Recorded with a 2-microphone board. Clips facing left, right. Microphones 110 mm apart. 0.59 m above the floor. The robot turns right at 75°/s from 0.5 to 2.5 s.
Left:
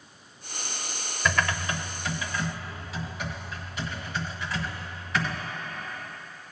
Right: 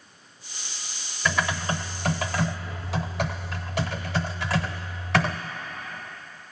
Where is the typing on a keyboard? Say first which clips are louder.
Right 1 dB; straight behind, 0.7 m; by 5.4 s 90° right, 0.7 m.